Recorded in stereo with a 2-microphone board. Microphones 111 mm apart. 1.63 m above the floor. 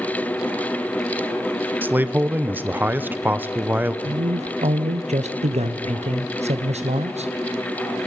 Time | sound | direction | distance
1.8 | a man speaking | 15° right (ahead or behind) | 0.8 m
4.0 | a man speaking | 80° right | 0.9 m